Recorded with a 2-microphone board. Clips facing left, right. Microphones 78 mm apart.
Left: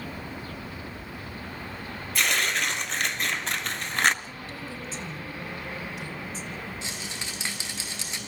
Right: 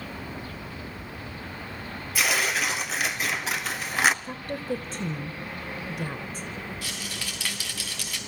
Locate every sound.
2.1 s tearing paper: 5° right (ahead or behind), 1.2 m
4.2 s a woman speaking: 50° right (ahead or behind), 2 m
6.8 s a rattle: 25° left (ahead or behind), 3.5 m